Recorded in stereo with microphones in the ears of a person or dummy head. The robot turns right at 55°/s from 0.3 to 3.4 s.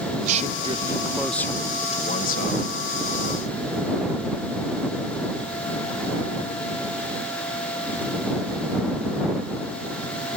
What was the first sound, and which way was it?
A man speaking, 50° right.